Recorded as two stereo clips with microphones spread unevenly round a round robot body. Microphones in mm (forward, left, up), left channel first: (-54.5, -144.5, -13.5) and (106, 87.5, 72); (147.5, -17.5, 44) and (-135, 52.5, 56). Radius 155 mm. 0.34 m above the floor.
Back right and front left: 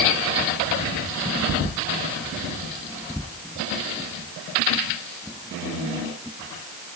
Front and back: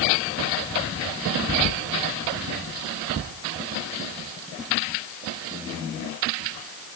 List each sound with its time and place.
Only background noise.